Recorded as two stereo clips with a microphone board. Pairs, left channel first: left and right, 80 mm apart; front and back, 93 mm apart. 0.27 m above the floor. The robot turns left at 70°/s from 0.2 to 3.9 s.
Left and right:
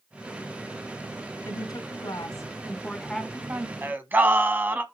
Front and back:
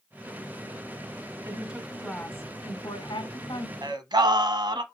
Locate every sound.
1.4 s a woman speaking: 120° left, 2.5 m; by 3.7 s 40° right, 2.5 m
3.8 s singing: 145° right, 1.1 m; by 4.8 s 155° right, 1.1 m